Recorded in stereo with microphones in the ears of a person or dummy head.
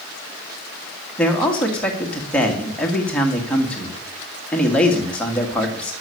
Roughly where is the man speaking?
Centre.